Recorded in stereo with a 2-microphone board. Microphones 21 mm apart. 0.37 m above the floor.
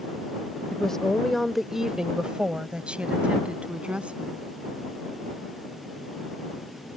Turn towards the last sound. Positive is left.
turn(degrees=-75)  # may be behind; listen again after turning